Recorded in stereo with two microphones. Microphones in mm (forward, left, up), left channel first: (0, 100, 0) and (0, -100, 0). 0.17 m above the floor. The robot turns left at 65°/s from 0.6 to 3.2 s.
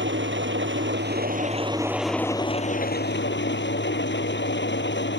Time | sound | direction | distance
0.0 | an engine running | 85° right | ?